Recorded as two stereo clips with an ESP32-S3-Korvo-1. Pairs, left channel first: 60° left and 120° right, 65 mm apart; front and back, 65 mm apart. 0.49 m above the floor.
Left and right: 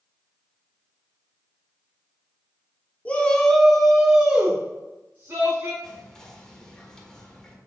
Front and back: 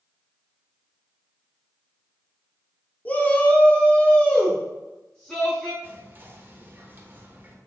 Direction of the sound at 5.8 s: 135° left.